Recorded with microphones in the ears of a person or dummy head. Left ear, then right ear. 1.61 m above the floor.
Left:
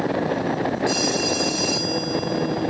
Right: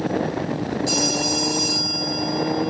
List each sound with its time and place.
0.9 s a phone ringing: 5° left (ahead or behind), 7.5 m